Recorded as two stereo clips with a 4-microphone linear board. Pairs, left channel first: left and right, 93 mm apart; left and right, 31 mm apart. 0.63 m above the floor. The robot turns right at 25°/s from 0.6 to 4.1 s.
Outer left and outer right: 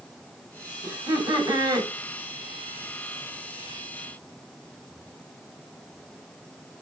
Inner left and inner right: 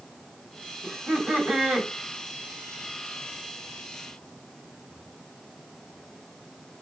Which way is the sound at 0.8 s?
40° right (ahead or behind).